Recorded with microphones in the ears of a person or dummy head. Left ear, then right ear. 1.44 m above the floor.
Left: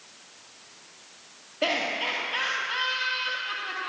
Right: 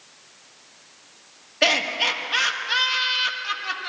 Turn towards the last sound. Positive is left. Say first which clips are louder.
# right 6 dB
turn(degrees=-50)  # may be behind; listen again after turning